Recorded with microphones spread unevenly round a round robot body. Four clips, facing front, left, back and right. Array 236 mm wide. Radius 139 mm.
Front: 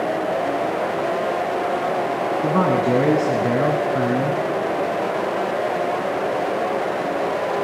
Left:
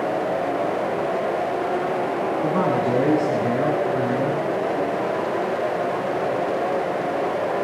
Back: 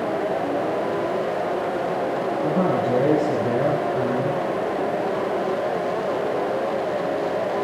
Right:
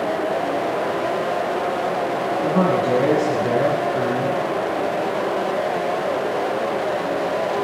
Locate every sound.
2.4 s a man speaking: straight ahead, 3 m